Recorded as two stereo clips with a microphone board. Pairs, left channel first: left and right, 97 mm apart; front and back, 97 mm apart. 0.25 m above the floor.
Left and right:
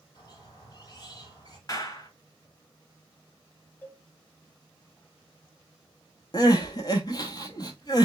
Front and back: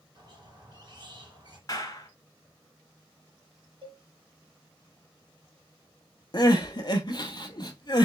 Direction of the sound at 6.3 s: 45° left.